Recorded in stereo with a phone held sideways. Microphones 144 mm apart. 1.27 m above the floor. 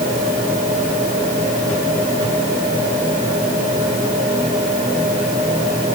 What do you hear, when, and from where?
Only background noise.